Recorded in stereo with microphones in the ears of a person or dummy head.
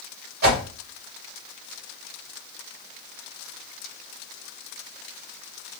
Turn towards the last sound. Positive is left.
turn(degrees=-65)  # may be behind; listen again after turning